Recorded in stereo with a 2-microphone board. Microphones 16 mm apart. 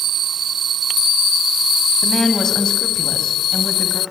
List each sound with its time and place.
2.0 s a woman speaking: 30° left (ahead or behind), 2 m; by 4.0 s 45° left (ahead or behind), 2.0 m